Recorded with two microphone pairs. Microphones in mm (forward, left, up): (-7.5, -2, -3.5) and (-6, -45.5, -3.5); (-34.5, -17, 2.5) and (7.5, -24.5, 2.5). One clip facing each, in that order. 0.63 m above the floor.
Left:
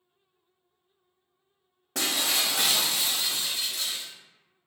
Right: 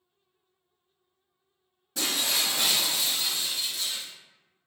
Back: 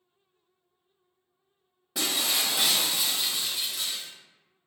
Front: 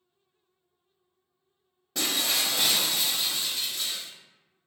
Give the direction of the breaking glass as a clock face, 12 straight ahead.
9 o'clock.